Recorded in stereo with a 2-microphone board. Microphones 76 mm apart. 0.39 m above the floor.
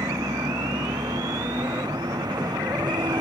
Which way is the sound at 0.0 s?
65° right (ahead or behind).